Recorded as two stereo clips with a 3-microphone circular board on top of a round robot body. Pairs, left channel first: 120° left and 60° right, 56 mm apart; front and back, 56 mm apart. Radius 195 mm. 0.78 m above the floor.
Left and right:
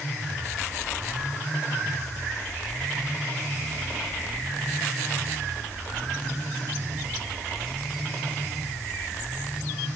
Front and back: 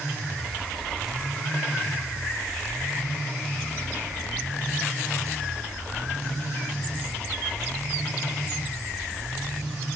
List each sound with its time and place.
Only background noise.